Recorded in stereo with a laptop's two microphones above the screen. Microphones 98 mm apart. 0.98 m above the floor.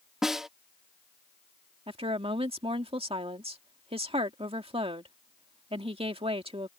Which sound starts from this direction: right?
A woman speaking, at 1.9 s.